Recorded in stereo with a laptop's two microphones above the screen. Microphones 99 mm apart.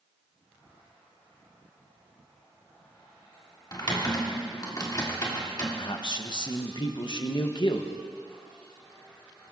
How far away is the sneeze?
No sneeze in this recording.